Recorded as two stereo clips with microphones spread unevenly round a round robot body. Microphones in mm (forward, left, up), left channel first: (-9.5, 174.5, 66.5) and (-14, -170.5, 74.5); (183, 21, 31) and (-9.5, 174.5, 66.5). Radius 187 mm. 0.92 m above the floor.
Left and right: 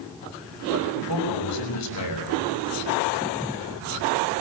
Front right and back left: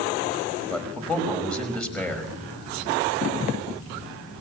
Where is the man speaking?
45° left, 5.5 m.